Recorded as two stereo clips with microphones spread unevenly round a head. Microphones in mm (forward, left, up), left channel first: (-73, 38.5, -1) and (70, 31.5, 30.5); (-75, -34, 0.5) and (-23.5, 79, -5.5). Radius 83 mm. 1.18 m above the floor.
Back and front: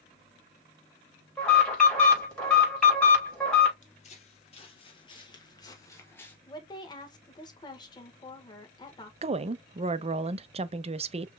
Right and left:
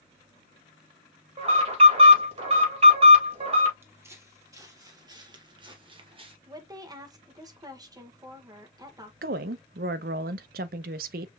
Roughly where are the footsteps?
Behind left.